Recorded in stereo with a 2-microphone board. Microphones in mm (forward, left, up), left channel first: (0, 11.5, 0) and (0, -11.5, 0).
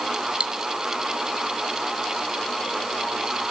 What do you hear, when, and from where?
0.4 s cutlery clinking: 55° right (ahead or behind), 1.3 m